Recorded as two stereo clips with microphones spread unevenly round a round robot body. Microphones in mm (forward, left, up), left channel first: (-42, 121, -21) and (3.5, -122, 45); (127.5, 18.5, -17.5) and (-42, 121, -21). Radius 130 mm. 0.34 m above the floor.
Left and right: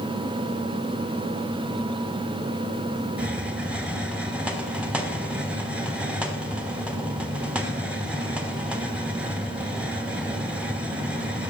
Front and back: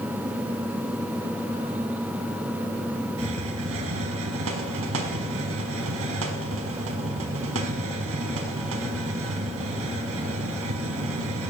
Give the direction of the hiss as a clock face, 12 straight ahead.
6 o'clock.